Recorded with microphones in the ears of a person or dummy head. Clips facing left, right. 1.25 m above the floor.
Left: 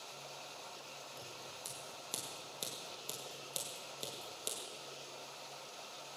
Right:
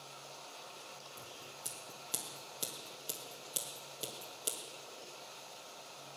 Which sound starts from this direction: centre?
Scissors, at 1.2 s.